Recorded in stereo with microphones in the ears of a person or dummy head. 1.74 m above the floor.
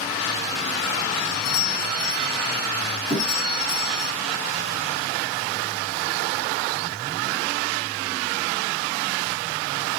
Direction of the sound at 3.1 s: 10° left (ahead or behind).